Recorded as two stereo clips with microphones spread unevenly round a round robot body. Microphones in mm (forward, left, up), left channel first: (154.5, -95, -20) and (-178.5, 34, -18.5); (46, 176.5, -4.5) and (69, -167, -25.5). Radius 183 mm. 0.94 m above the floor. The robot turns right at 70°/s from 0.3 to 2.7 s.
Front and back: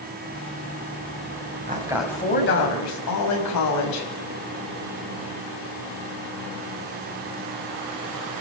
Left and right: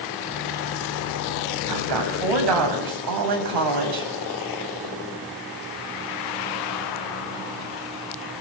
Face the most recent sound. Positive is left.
turn(degrees=-65)